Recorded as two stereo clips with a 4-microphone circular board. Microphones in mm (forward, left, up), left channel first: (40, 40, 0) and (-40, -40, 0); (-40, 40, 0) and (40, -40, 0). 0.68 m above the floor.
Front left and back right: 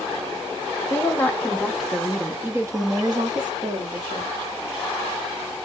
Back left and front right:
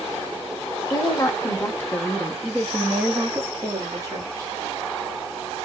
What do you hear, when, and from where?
0.9 s a woman speaking: 100° left, 1.2 m; by 4.5 s 105° right, 1.9 m